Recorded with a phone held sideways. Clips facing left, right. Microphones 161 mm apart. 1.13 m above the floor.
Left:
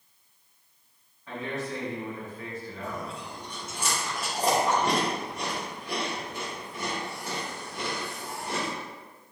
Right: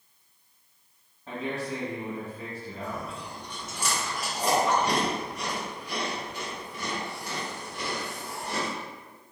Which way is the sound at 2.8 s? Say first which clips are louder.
Right 2 dB; 50° left (ahead or behind).